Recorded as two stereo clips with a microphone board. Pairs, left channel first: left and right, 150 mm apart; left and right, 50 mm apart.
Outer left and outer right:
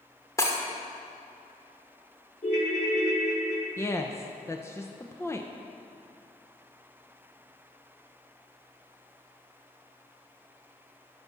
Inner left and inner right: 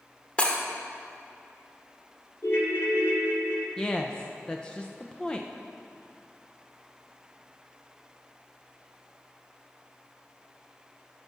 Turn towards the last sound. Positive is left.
turn(degrees=15)  # may be behind; listen again after turning